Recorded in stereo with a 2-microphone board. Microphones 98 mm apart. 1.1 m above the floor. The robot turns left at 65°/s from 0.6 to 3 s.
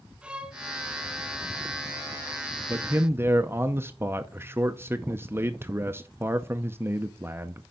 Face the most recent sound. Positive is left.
turn(degrees=-25)  # may be behind; listen again after turning